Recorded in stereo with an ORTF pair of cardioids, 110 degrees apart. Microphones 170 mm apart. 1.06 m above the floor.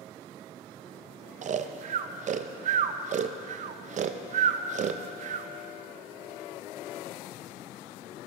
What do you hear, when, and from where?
1.4 s snoring: 45° right, 0.6 m